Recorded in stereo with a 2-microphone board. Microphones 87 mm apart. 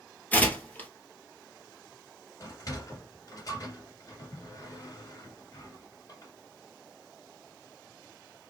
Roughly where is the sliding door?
Left.